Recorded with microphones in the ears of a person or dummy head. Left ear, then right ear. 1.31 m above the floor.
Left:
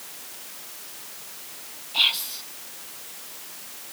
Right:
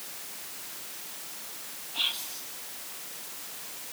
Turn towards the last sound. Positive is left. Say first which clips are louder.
# left 9 dB
turn(degrees=40)  # may be behind; listen again after turning